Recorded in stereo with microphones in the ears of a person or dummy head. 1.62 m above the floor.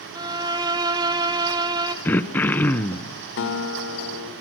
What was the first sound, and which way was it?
A violin, 15° right (ahead or behind).